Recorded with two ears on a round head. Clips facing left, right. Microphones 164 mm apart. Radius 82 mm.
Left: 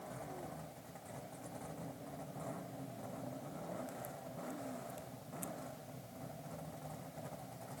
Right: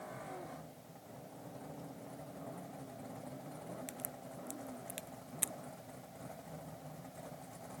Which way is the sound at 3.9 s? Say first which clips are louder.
Left 1 dB; 85° right.